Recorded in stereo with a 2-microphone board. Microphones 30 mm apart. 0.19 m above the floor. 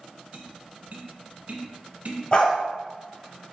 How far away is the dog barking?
About 1.2 m.